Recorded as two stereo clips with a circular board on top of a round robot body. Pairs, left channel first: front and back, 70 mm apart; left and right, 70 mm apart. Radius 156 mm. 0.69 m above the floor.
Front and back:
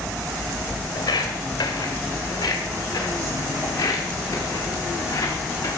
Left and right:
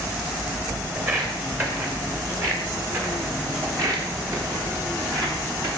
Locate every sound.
0.9 s footsteps: 30° right, 4 m; by 5.7 s 50° right, 7.5 m